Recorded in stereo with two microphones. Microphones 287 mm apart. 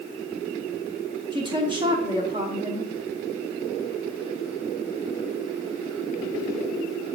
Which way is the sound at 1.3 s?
15° right (ahead or behind).